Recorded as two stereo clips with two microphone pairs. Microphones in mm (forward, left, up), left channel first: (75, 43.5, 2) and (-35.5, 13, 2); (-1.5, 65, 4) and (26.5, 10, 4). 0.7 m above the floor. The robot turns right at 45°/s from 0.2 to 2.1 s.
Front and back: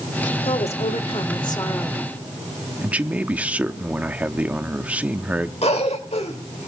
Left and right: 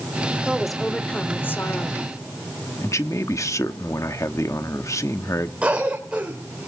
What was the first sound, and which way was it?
A woman speaking, 15° left.